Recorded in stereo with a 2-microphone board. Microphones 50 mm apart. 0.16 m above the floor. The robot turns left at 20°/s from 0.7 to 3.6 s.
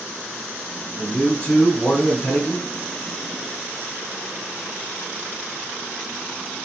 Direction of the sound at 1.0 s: 25° left (ahead or behind).